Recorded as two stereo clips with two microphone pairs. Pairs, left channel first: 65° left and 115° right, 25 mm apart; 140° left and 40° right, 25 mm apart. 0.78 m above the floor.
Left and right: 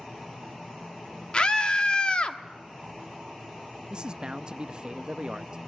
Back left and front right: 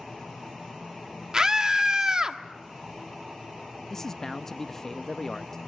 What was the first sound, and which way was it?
A scream, 15° left.